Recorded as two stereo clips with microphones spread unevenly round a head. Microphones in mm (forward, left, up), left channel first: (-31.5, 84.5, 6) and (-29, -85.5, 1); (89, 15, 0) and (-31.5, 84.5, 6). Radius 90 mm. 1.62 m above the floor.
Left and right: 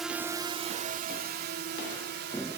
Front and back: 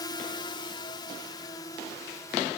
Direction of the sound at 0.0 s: 5° right.